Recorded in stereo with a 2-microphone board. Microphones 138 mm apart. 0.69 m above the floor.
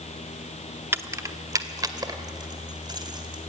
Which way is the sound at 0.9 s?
15° right (ahead or behind).